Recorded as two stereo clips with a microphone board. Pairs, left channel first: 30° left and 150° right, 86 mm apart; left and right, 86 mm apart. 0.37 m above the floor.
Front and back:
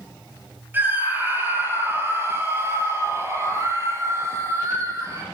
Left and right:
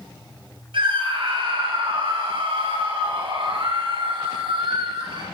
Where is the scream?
85° right, 8.5 m; by 5.2 s 100° right, 10 m.